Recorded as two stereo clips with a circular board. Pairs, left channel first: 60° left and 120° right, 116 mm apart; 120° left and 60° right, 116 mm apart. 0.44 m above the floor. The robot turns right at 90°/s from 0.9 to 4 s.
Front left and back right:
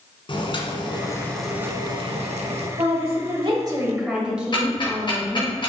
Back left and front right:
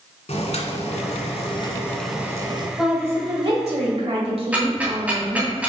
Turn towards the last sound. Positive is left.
turn(degrees=15)